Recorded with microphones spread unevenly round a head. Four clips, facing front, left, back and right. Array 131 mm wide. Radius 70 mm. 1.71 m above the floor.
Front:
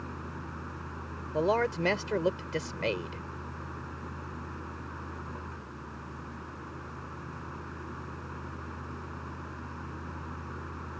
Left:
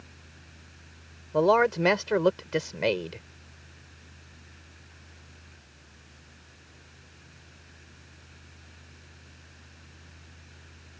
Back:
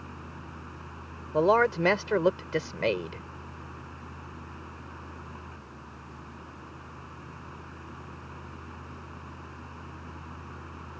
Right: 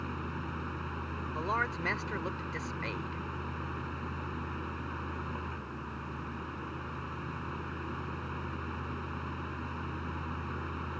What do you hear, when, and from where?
0.0 s a fan: 40° right
1.3 s a man speaking: 150° left